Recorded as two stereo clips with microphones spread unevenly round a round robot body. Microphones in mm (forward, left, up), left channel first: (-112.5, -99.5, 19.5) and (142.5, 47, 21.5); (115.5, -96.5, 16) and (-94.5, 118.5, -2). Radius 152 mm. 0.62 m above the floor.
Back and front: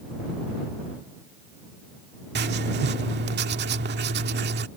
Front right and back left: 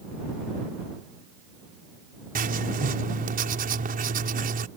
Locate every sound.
2.4 s writing: 80° left